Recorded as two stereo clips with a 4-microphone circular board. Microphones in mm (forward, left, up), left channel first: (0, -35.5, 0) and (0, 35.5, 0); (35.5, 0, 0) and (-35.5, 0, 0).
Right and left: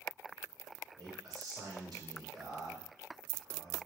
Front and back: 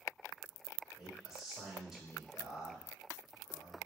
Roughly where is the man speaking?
Left.